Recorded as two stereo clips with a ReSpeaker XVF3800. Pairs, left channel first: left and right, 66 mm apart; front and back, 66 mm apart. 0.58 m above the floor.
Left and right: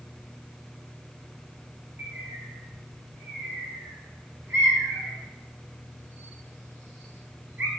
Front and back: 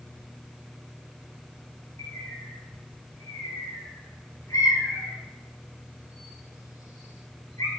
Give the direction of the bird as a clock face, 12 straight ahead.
1 o'clock.